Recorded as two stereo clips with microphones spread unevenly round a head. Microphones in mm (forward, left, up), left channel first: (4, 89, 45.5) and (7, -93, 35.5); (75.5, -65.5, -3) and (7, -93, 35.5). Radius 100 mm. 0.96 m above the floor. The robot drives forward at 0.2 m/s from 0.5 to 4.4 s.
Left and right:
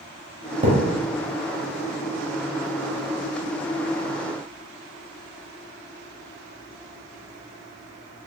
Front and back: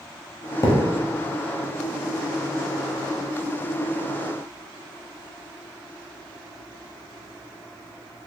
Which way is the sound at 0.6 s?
45° right.